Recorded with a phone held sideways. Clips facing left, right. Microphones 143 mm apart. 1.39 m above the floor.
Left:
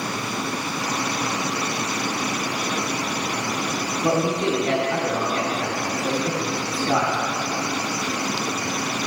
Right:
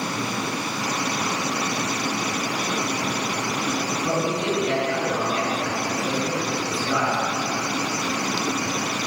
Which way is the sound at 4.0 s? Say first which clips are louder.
Left 4 dB; 65° left (ahead or behind).